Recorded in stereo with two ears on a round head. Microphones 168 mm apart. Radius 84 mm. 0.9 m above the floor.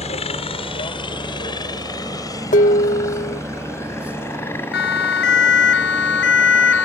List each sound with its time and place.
0.0 s a helicopter: 35° left (ahead or behind); by 6.8 s 10° left (ahead or behind)
2.5 s dishes clattering: 40° left (ahead or behind)
4.7 s a siren: 60° left (ahead or behind); by 6.8 s 70° left (ahead or behind)